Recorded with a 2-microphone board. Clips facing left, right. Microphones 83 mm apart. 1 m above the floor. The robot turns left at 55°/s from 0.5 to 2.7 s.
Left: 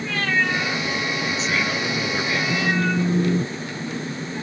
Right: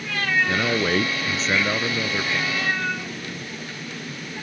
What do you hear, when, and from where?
0.5 s a man speaking: 90° right; by 2.4 s 170° left
2.5 s a phone buzzing: 80° left; by 4.1 s 75° left (ahead or behind)